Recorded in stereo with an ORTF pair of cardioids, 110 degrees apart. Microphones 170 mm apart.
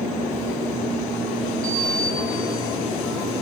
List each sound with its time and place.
1.6 s a sliding door: 10° left, 3 m